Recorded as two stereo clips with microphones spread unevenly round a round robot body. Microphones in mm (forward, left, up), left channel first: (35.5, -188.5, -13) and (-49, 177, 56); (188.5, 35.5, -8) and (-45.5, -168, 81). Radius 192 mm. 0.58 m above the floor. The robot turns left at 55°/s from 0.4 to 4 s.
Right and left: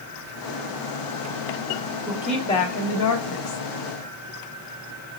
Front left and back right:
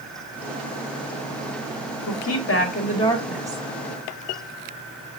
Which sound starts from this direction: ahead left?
A woman speaking, at 2.1 s.